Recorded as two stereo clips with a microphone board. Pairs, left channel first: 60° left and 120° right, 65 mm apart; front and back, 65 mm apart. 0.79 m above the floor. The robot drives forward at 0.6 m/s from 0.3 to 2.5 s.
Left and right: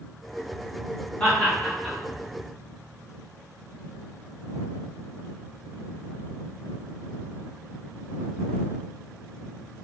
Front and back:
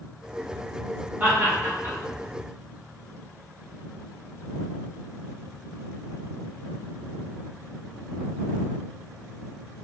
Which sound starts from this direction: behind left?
Laughter, at 1.2 s.